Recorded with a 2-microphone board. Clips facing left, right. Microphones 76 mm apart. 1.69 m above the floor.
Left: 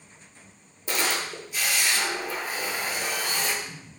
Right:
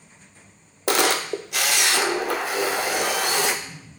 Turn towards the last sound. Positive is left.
turn(degrees=-70)  # may be behind; listen again after turning